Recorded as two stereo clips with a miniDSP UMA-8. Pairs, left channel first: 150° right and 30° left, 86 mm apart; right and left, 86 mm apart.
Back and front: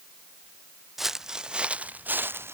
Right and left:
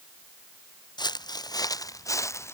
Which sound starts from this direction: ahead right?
Footsteps, at 1.0 s.